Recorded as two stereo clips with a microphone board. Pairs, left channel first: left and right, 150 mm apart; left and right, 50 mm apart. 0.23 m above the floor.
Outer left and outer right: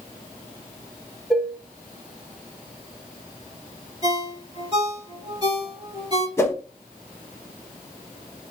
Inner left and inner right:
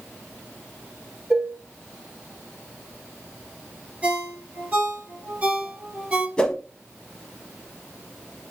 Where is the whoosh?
20° left (ahead or behind), 0.8 m.